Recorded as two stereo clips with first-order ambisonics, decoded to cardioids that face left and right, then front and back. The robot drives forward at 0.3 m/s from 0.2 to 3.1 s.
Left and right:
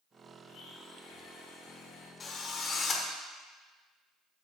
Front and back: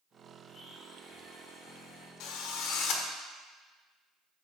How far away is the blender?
About 4.5 m.